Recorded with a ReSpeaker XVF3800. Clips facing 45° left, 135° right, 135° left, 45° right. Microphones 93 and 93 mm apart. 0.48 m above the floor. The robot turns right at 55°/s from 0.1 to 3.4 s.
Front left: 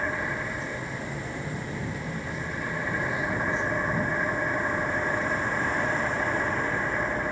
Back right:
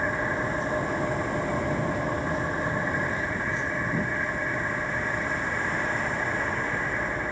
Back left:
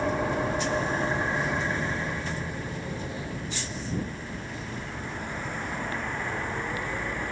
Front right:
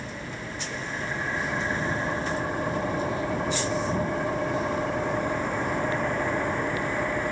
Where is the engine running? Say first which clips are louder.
Back right 3 dB, back left 10 dB; 145° left; by 7.3 s 30° right.